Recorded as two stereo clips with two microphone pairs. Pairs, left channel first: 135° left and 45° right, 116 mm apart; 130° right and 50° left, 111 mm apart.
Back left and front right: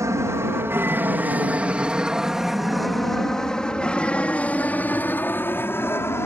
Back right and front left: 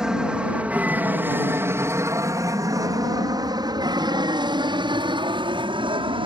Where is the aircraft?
25° right; by 6.3 s 70° left.